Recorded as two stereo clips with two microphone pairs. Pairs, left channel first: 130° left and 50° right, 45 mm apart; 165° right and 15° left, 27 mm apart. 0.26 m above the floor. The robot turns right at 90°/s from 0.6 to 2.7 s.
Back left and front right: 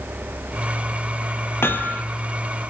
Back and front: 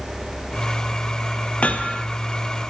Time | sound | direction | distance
1.6 | hammering | 160° left | 2.5 m